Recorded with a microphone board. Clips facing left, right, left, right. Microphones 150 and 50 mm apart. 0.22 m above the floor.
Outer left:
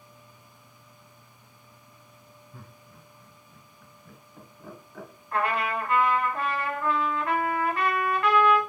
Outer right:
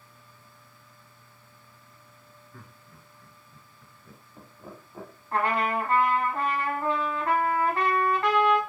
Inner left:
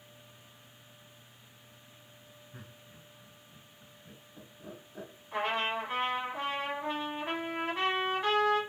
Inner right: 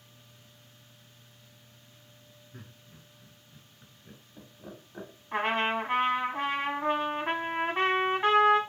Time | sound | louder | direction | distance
2.5 | laughter | outer left 1 dB, inner right 2 dB | 30° left (ahead or behind) | 1.5 m
5.3 | a trumpet | outer right 1 dB, inner right 4 dB | 35° right (ahead or behind) | 0.9 m